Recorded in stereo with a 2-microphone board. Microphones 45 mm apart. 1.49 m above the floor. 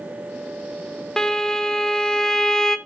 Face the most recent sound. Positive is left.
turn(degrees=10)  # may be behind; listen again after turning